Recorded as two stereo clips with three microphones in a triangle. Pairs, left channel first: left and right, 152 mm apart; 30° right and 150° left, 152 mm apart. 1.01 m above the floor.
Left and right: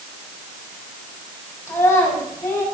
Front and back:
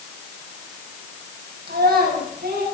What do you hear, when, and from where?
1.7 s a child speaking: 165° left, 5.5 m